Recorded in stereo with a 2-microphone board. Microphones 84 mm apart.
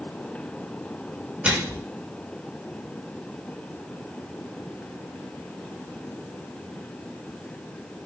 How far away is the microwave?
About 0.7 m.